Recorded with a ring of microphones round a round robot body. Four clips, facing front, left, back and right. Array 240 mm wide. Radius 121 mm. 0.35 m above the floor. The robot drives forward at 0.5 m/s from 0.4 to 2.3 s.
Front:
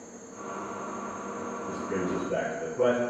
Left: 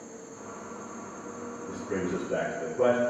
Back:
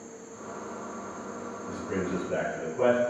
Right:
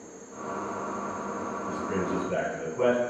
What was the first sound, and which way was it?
An insect, 80° left.